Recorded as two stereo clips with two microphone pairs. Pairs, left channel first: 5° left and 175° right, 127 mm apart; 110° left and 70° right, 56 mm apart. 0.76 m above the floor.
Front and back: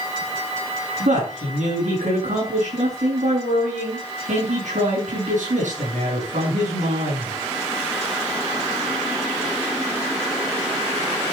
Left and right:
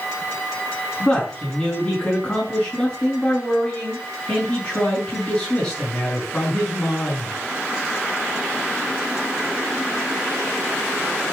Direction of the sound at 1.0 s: Straight behind.